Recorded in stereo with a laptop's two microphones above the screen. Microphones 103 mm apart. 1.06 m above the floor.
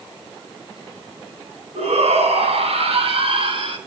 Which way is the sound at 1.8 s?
85° right.